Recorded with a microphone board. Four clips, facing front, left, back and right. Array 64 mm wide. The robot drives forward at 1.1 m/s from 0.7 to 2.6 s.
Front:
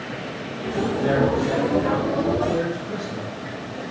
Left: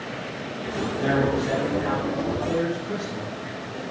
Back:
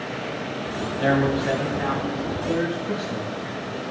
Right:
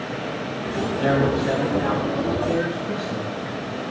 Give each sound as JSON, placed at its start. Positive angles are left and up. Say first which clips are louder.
{"t": 1.0, "sound": "a man speaking", "louder": "right 2 dB, back 1 dB", "azimuth_deg": -165, "distance_m": 4.5}